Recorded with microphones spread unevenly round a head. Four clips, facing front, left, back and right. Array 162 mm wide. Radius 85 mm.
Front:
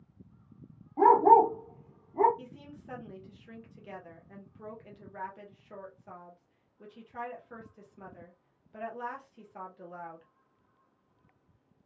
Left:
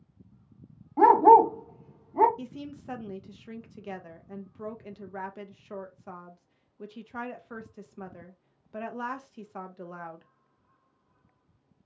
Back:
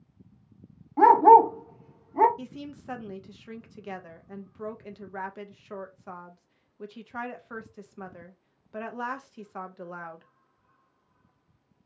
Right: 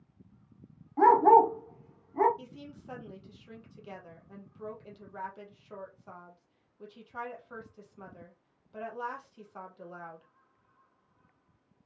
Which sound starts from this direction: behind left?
A woman speaking, at 2.4 s.